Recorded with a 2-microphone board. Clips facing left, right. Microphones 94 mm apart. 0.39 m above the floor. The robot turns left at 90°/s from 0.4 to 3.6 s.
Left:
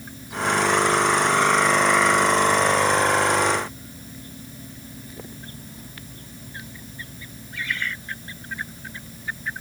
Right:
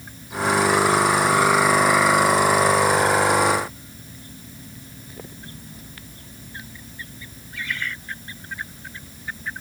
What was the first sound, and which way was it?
Only background noise.